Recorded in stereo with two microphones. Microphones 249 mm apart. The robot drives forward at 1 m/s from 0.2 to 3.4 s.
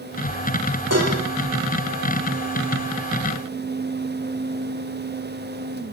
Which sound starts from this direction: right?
Dishes clattering, at 0.9 s.